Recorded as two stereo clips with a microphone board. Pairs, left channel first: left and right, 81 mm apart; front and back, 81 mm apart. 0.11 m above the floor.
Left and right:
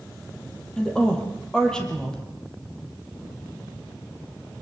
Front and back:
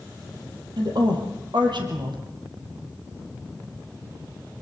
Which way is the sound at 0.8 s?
170° left.